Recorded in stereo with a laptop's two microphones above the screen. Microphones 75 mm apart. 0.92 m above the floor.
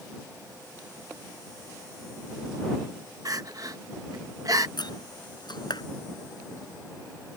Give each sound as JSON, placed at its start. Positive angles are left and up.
{"t": 3.2, "sound": "crying", "side_deg": -50}
{"t": 4.8, "sound": "a door slam", "side_deg": 75}